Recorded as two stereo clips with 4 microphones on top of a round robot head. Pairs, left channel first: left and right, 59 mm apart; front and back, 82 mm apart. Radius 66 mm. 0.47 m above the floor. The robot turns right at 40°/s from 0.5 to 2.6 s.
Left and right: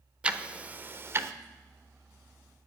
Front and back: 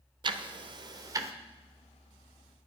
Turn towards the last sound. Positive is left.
turn(degrees=-75)